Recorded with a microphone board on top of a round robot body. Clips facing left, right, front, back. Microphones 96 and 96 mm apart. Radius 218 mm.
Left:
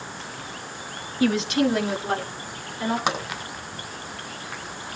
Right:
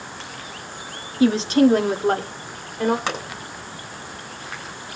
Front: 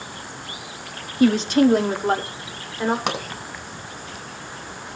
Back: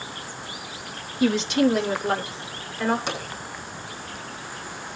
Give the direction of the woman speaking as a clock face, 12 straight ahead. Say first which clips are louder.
Right 5 dB, front 4 dB; 1 o'clock.